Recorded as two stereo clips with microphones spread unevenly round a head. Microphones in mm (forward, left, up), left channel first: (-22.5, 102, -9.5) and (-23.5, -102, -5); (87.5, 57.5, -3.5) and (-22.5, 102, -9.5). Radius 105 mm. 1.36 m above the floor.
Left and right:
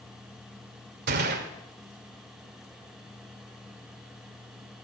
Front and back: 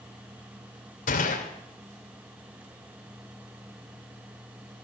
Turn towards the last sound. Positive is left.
turn(degrees=-45)